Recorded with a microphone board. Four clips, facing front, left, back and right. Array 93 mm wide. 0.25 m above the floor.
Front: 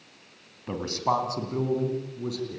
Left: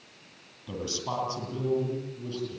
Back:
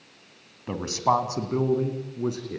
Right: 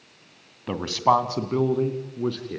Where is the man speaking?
95° right, 2 m; by 2.6 s 120° right, 4 m.